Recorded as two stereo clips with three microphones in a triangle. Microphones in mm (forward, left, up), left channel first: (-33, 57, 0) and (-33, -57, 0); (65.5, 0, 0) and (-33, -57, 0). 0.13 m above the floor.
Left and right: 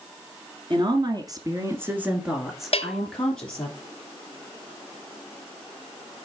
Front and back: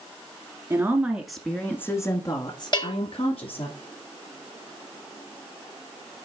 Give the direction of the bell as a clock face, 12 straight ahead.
10 o'clock.